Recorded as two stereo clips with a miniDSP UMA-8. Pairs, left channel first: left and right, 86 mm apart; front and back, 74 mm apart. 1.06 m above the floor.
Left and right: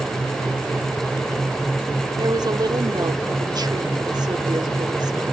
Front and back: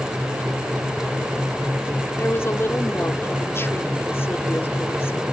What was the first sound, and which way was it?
A woman speaking, 55° right.